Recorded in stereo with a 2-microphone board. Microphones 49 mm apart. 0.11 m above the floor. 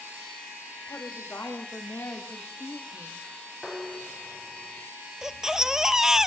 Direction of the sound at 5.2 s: 10° right (ahead or behind).